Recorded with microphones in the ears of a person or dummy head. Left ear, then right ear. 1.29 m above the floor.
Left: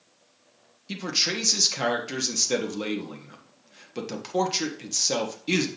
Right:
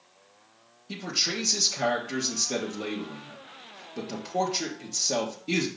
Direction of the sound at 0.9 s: 55° left (ahead or behind).